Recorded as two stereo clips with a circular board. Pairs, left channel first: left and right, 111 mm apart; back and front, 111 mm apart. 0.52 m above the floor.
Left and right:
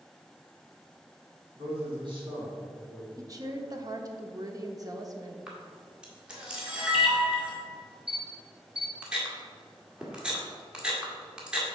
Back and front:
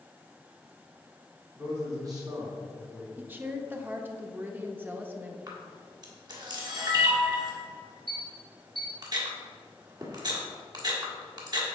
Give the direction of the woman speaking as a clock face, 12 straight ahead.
2 o'clock.